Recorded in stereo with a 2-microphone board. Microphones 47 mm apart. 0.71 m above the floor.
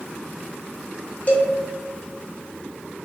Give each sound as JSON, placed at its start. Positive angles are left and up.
{"t": 1.3, "sound": "a cowbell", "side_deg": 45, "distance_m": 0.7}